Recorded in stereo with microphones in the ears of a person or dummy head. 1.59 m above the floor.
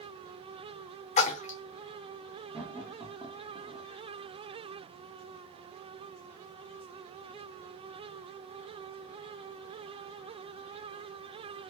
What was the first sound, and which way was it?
A splash, 40° left (ahead or behind).